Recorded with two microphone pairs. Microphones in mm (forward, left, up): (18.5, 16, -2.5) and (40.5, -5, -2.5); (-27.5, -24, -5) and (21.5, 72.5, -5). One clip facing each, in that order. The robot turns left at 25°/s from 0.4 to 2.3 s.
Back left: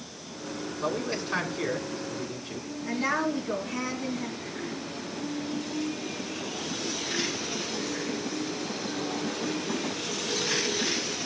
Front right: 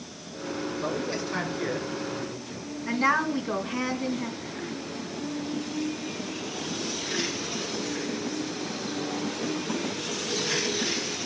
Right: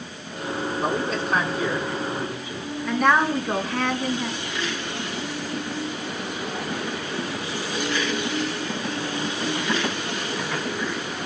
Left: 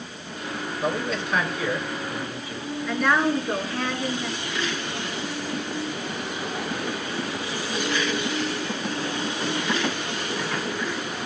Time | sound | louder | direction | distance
0.8 | a man speaking | back left 3 dB, even | 145° right | 3.5 m
2.9 | a woman speaking | front right 4 dB, right 2 dB | 105° right | 3.5 m